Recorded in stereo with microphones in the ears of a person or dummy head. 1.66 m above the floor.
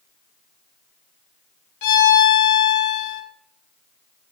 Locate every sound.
1.8 s a violin: 65° left (ahead or behind), 1.3 m